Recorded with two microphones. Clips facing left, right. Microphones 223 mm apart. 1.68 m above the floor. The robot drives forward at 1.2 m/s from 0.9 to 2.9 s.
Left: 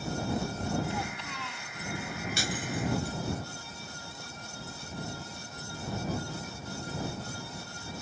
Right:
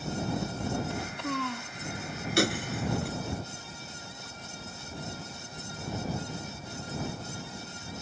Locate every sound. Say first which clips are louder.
0.9 s a child speaking: right 4 dB; 65° right (ahead or behind); by 1.7 s 60° right (ahead or behind)
2.4 s breaking glass: right 8 dB; 70° right (ahead or behind); by 3.2 s 75° right (ahead or behind)